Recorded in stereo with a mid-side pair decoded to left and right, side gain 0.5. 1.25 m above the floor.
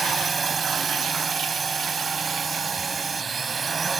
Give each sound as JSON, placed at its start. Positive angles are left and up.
{"t": 0.0, "sound": "a drone", "azimuth_deg": -30}